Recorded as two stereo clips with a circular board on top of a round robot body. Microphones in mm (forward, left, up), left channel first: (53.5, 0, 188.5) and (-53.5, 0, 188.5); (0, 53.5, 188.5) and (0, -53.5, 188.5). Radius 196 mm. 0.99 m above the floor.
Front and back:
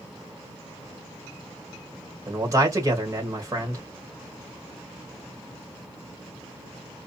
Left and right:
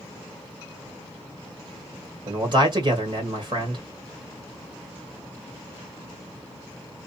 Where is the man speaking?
125° right, 1.3 m.